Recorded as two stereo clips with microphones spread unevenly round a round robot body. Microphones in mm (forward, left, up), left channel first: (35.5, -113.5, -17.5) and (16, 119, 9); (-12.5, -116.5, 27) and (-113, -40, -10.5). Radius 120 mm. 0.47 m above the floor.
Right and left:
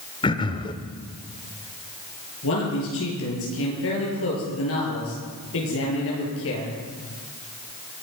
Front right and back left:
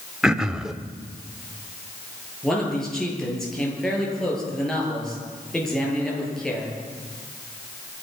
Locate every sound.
0.2 s throat clearing: 145° right, 0.8 m
2.4 s a man speaking: 120° right, 8 m